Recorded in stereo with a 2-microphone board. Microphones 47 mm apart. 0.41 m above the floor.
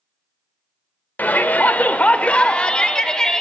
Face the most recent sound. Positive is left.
turn(degrees=15)  # may be behind; listen again after turning